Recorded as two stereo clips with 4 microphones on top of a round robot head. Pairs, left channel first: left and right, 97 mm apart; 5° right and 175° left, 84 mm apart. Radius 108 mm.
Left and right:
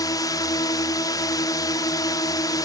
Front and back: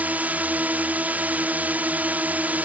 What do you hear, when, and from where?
0.0 s a drone: 115° left